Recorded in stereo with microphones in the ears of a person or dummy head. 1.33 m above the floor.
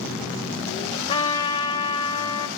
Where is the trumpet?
25° left (ahead or behind), 3 m.